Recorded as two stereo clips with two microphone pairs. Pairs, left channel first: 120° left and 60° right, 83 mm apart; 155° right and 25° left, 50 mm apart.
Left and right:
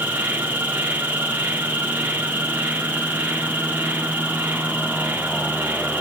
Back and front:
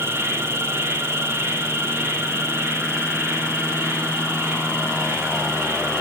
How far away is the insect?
About 3.5 m.